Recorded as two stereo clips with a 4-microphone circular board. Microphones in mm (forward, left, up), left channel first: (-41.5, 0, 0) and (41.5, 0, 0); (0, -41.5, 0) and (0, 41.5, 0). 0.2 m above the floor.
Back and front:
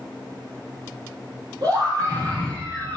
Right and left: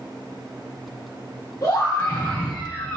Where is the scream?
35° right, 4 m; by 3.0 s 20° right, 4 m.